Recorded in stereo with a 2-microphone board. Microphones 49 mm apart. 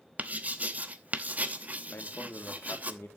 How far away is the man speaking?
About 2.5 m.